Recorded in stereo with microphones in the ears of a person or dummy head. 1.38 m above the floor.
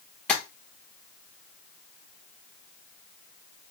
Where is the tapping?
5° left (ahead or behind), 0.7 m.